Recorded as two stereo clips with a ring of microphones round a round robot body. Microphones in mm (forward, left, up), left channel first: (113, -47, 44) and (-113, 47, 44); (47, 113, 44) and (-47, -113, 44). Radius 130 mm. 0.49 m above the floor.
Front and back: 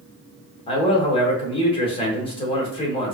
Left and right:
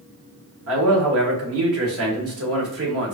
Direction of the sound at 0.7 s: 90° right.